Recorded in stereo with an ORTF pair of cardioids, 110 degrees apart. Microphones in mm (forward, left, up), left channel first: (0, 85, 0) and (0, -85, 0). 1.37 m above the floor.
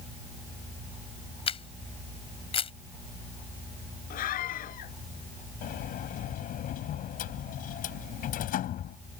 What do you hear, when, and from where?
1.5 s a camera shutter: 35° left
4.1 s a scream: 65° left
5.6 s a sliding door: 65° left